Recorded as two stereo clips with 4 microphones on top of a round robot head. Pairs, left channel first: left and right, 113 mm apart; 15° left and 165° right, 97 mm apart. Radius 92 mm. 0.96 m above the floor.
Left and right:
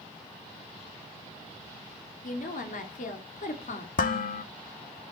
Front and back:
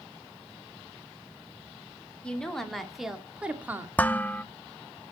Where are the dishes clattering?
90° left, 1.0 m.